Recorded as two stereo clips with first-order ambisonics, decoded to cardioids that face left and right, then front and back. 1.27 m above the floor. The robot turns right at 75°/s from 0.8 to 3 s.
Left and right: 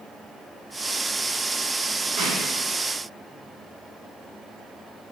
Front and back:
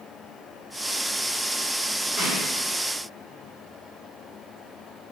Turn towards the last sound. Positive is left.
turn(degrees=-70)